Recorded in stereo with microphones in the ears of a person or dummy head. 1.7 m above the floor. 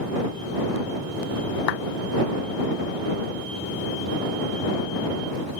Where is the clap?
55° left (ahead or behind).